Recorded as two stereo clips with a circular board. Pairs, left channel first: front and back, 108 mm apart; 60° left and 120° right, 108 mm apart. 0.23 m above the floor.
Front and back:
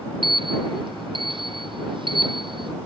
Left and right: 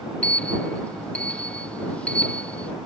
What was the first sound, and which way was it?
A sliding door, 140° left.